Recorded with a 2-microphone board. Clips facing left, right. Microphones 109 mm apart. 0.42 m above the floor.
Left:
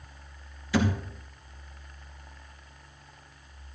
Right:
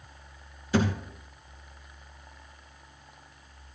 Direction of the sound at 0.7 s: 45° right (ahead or behind).